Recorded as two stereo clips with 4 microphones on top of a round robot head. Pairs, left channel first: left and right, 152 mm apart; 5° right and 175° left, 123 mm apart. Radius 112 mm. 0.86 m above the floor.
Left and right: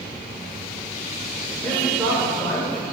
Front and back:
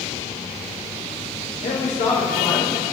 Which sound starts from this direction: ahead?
A man speaking, at 1.6 s.